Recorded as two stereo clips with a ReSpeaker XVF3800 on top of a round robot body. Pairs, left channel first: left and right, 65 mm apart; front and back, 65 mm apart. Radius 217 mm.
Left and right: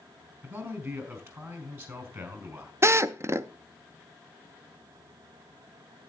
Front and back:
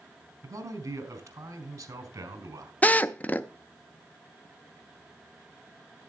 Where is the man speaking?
140° right, 3.5 m.